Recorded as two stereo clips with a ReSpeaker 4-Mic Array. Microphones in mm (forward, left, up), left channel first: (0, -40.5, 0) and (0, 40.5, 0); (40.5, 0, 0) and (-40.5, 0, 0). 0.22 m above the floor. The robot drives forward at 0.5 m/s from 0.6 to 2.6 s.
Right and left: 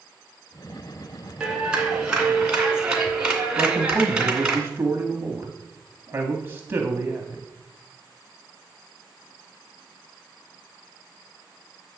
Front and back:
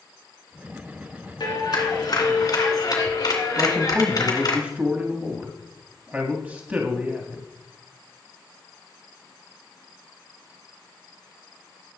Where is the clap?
10° left, 2.5 m; by 4.6 s 15° left, 2 m.